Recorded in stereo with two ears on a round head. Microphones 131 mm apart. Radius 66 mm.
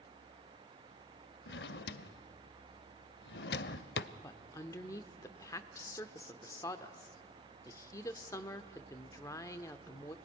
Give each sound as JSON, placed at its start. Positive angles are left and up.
{"t": 1.5, "sound": "a drawer", "side_deg": 80, "distance_m": 0.6}
{"t": 4.2, "sound": "a woman speaking", "side_deg": 20, "distance_m": 0.8}